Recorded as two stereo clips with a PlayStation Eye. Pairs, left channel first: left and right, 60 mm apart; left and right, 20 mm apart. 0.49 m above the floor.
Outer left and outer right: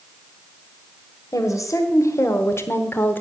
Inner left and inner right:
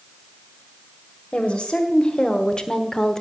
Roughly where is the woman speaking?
Left.